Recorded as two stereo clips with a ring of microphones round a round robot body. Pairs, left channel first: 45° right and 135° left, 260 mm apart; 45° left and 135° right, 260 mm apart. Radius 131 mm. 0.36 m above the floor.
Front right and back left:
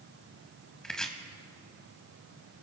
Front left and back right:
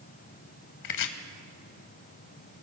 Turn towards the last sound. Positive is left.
turn(degrees=40)